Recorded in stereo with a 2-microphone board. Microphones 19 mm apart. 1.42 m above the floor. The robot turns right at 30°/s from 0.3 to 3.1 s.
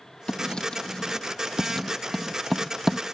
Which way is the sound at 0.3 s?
60° left (ahead or behind).